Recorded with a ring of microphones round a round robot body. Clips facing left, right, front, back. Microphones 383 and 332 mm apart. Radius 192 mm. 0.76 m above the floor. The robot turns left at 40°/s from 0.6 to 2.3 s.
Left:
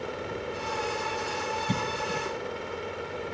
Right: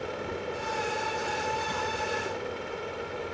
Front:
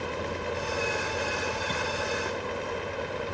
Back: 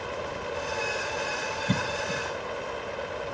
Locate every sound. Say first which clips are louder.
1.7 s a cough: left 2 dB, back 1 dB; 150° left; by 2.3 s 125° left